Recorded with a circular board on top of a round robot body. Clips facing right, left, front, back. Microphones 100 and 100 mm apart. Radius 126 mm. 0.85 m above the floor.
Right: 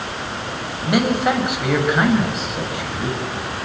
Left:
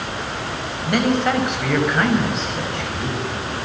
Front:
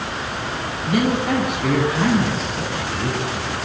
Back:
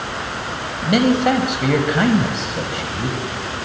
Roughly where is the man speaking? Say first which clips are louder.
Right 1 dB, back 5 dB; behind.